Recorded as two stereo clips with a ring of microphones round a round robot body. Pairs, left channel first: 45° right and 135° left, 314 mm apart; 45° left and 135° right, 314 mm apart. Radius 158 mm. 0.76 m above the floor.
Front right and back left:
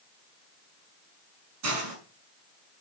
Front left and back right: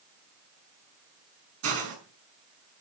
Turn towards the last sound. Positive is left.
turn(degrees=180)